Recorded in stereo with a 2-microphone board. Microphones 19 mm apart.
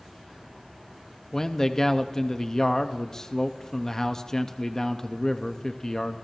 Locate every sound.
1.3 s a man speaking: 25° left (ahead or behind), 0.6 m